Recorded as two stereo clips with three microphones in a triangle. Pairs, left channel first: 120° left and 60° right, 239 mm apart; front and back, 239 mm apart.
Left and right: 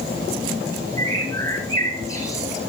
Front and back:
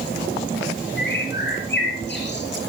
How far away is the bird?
About 3.5 m.